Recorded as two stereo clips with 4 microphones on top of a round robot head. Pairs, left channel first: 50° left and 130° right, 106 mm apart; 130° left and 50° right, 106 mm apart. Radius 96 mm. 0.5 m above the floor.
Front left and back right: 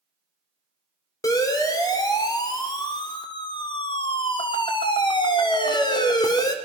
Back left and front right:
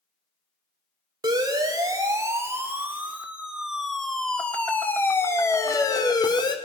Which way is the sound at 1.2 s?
5° right.